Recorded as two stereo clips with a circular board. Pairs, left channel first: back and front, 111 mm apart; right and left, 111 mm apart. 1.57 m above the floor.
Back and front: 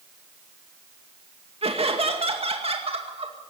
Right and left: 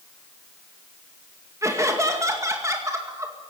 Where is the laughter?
25° left, 2 m.